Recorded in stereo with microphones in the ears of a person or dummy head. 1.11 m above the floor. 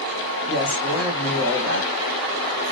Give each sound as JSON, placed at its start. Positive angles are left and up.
{"t": 0.5, "sound": "a man speaking", "side_deg": 55, "distance_m": 1.3}